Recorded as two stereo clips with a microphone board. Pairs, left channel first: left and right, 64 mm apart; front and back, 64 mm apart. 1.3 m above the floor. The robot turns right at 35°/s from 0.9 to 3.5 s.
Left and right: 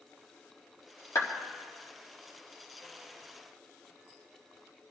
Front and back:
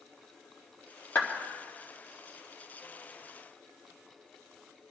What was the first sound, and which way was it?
A clap, 60° left.